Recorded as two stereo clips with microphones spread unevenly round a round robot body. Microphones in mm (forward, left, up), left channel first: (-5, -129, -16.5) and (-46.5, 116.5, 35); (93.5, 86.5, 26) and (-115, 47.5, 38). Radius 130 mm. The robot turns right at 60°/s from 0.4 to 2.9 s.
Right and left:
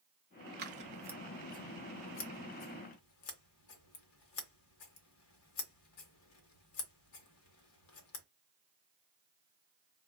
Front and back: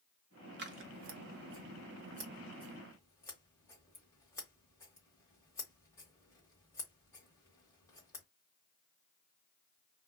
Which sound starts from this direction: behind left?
Scissors, at 0.6 s.